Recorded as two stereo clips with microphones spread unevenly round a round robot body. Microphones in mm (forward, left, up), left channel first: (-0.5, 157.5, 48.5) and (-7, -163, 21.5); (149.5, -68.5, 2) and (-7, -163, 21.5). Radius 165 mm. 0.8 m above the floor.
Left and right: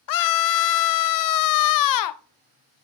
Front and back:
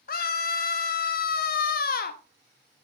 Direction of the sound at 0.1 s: 65° left.